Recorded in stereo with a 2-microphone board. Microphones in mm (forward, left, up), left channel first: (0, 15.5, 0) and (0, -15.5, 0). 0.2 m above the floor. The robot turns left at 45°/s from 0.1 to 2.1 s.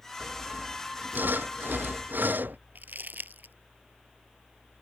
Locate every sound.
0.2 s sawing: 25° right; by 2.6 s 110° right
2.8 s crumpling: 65° right (ahead or behind)